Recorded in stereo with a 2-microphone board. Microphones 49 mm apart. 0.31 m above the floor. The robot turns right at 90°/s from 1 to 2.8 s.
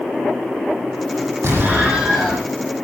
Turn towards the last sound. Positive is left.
turn(degrees=65)